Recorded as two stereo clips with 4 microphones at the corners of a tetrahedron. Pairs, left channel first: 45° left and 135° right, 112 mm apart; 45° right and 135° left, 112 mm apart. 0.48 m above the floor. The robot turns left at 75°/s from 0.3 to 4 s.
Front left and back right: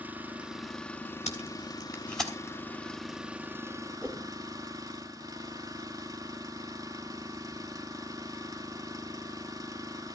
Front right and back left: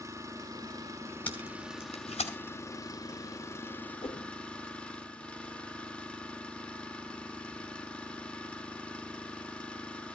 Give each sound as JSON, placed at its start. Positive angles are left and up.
{"t": 0.0, "sound": "an engine running", "azimuth_deg": 160, "distance_m": 1.2}
{"t": 1.3, "sound": "tape being pulled", "azimuth_deg": 30, "distance_m": 4.5}
{"t": 4.0, "sound": "a whoosh", "azimuth_deg": -60, "distance_m": 1.7}